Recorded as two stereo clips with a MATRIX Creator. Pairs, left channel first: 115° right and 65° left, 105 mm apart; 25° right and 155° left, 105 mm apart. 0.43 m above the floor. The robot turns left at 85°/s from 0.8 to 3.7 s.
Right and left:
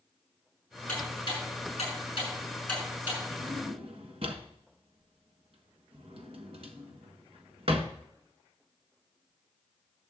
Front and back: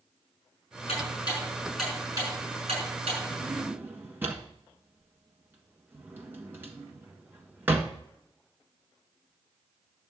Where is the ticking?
40° right, 5.5 m; by 3.2 s 125° left, 5.5 m.